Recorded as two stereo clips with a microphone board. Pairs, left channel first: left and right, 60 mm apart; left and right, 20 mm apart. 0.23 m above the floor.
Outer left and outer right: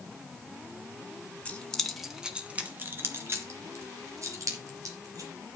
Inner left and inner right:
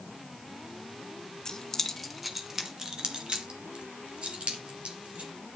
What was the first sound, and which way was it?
Keys jangling, 20° left (ahead or behind).